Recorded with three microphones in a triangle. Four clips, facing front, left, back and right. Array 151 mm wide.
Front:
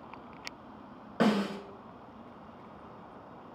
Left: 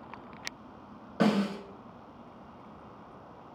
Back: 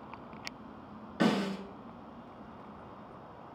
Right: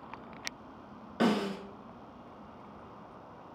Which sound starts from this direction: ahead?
A snare drum, at 1.2 s.